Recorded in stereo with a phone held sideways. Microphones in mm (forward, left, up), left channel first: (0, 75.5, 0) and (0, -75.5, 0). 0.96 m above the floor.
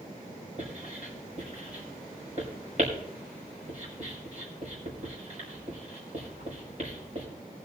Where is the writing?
50° right (ahead or behind), 6 m.